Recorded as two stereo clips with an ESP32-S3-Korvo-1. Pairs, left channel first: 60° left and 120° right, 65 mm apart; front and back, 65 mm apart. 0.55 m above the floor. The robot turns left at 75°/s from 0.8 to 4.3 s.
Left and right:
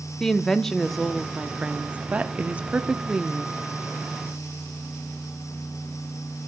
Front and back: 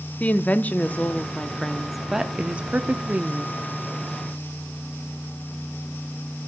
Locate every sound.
0.2 s a woman speaking: 15° right, 0.7 m; by 3.6 s 140° left, 0.7 m